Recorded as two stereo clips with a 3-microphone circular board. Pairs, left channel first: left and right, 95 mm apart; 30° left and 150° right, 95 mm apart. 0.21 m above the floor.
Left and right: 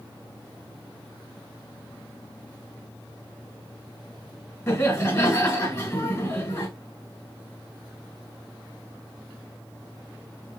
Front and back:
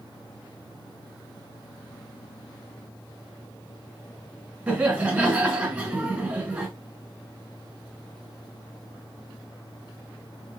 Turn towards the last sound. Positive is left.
turn(degrees=150)